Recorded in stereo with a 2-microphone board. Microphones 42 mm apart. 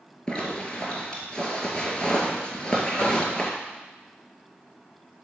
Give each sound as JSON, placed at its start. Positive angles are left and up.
{"t": 0.3, "sound": "a zipper", "side_deg": 20, "distance_m": 1.7}
{"t": 3.0, "sound": "knocking", "side_deg": 25, "distance_m": 3.0}